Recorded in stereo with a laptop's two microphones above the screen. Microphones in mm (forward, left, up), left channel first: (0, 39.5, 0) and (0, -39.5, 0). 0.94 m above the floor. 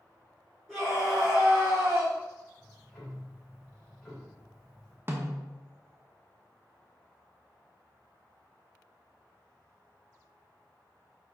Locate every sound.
0.7 s a scream: 5° left (ahead or behind), 2 m; by 2.1 s 20° right (ahead or behind), 2.5 m
2.6 s ticking: 15° left (ahead or behind), 3 m
5.1 s a snare drum: 30° right (ahead or behind), 1.0 m